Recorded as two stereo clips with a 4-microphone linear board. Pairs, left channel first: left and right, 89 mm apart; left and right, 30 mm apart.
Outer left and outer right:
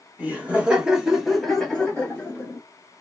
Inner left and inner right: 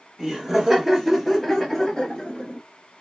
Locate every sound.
0.2 s laughter: 20° right (ahead or behind), 1.6 m; by 2.6 s 20° left (ahead or behind), 1.4 m